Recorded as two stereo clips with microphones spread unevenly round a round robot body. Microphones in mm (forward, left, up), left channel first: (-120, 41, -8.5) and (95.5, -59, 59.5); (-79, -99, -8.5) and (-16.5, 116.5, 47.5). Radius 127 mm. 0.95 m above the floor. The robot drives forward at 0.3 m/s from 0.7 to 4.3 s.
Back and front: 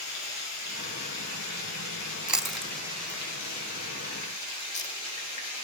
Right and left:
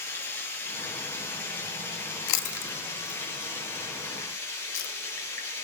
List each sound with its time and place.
0.0 s running water: 175° left, 6.5 m
2.3 s chewing: 110° right, 0.7 m; by 4.9 s 140° right, 1.1 m